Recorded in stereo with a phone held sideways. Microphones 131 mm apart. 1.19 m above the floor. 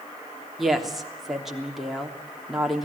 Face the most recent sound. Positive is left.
turn(degrees=0)  # may be behind; listen again after turning